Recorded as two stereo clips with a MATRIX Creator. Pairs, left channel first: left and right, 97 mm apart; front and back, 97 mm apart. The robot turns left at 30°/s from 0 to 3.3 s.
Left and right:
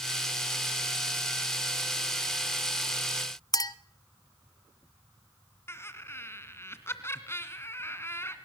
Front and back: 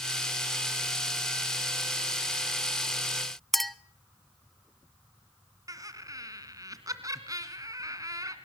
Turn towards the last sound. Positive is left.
turn(degrees=145)